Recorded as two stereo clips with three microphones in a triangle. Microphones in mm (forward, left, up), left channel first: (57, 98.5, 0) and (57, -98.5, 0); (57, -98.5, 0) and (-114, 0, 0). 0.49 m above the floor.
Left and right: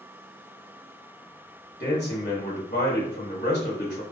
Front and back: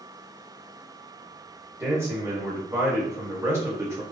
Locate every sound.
1.8 s a man speaking: 75° left, 1.2 m